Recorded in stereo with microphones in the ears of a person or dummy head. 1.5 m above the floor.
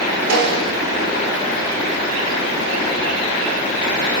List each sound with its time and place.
0.3 s a snare drum: 85° right, 4 m